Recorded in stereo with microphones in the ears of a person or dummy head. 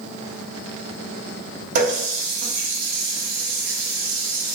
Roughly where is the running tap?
Right.